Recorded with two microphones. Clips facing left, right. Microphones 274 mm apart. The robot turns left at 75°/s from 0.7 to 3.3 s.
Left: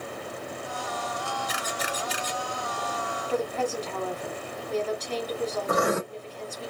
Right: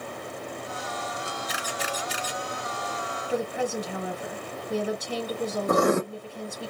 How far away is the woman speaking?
About 1.0 m.